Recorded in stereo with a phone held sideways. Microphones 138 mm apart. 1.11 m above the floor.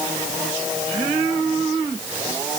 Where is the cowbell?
I don't hear a cowbell.